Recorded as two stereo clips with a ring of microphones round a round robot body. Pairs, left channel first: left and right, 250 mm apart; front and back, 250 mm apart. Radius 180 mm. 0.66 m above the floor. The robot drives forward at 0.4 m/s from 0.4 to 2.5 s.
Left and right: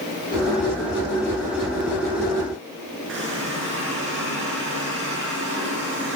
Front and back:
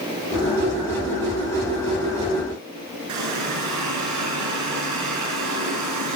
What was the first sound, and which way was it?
A running tap, 150° right.